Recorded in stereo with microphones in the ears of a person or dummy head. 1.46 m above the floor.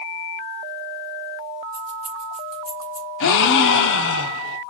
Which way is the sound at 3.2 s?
65° left (ahead or behind).